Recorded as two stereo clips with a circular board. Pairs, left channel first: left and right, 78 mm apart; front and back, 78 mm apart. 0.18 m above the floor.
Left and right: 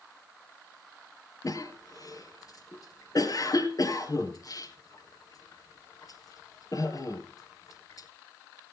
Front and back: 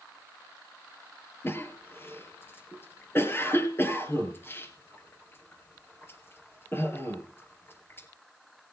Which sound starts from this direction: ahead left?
A cough, at 1.4 s.